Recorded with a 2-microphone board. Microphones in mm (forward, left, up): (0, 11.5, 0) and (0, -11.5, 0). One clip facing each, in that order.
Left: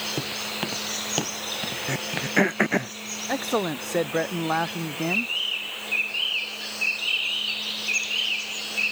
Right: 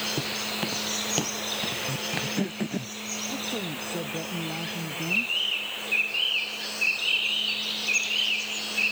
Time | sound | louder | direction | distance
0.2 | footsteps | even | 10° left (ahead or behind) | ?
1.9 | throat clearing | left 3 dB | 70° left (ahead or behind) | ?
3.3 | a man speaking | left 10 dB | 75° left (ahead or behind) | ?